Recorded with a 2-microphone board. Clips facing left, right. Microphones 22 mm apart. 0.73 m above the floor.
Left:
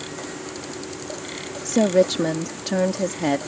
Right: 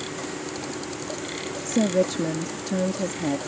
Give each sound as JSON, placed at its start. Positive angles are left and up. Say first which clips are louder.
{"t": 1.6, "sound": "a woman speaking", "louder": "left 5 dB", "side_deg": 55}